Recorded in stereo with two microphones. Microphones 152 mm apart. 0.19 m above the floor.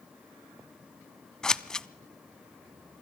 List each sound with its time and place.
1.4 s scissors: 5° left (ahead or behind), 0.5 m